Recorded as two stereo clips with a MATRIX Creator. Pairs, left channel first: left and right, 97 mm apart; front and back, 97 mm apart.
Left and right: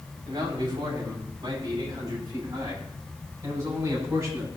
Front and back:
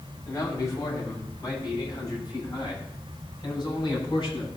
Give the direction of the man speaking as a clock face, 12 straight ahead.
2 o'clock.